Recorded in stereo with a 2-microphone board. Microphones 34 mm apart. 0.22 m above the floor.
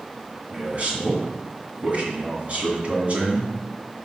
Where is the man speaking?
45° right (ahead or behind), 2 m.